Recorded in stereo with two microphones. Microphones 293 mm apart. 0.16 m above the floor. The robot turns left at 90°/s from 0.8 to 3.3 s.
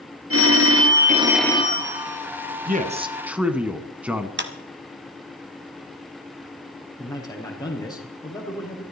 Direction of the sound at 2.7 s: 115° right.